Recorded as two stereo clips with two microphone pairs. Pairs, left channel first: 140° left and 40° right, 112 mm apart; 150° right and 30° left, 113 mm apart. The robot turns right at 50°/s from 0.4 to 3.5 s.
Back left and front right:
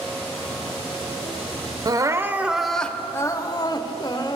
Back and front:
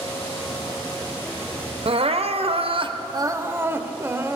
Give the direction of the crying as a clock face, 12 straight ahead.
12 o'clock.